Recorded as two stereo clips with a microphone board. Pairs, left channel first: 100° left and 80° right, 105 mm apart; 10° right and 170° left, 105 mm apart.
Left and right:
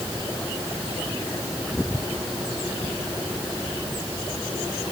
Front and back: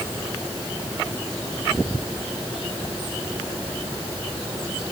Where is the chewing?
No chewing in this recording.